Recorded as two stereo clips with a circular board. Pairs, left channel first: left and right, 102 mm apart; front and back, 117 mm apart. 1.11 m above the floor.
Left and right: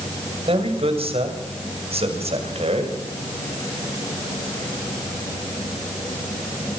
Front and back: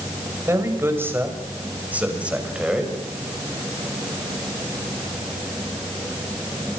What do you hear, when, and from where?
0.5 s a man speaking: 110° right, 6.5 m; by 3.0 s 95° right, 7 m